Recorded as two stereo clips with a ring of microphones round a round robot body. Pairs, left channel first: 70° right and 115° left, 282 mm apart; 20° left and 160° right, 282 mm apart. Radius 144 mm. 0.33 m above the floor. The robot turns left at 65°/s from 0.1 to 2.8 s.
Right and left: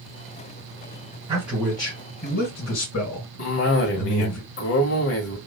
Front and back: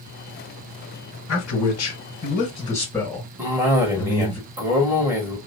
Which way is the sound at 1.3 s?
40° left.